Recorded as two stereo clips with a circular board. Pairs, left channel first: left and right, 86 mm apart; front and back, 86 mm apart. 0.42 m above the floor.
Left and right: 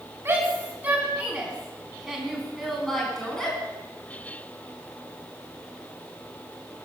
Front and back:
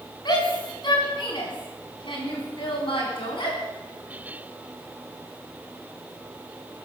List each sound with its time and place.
0.2 s a shout: 25° right, 4 m; by 3.6 s 10° left, 4.5 m